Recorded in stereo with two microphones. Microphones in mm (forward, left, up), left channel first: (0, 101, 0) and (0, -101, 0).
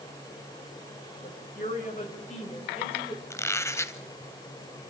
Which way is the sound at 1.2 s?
45° left (ahead or behind).